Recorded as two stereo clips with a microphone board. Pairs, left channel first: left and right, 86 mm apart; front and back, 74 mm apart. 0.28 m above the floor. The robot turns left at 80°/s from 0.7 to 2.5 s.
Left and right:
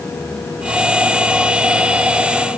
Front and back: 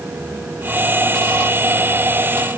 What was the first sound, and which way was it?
Only background noise.